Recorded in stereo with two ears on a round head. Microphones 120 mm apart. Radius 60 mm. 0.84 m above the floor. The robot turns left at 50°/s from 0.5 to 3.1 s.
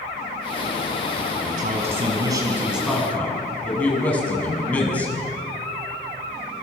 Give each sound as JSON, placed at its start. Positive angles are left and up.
{"t": 1.4, "sound": "a man speaking", "azimuth_deg": -105, "distance_m": 6.5}